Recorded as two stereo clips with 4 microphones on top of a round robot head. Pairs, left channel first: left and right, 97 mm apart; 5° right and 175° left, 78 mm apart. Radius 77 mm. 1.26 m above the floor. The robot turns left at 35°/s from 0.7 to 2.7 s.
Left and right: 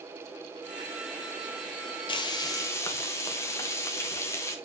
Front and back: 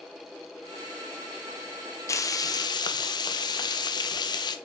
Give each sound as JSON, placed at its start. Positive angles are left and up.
{"t": 2.1, "sound": "frying", "azimuth_deg": 45, "distance_m": 1.4}